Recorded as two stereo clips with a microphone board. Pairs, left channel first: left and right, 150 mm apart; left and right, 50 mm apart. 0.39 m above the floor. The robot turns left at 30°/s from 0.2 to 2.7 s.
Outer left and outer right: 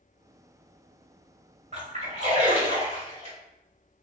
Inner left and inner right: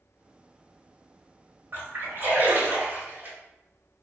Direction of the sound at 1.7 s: 50° right (ahead or behind).